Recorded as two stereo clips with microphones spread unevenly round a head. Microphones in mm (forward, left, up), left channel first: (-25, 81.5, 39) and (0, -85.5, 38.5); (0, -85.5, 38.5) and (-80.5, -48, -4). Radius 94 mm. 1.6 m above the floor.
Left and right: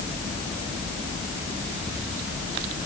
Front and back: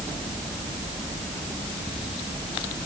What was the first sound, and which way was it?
Only background noise.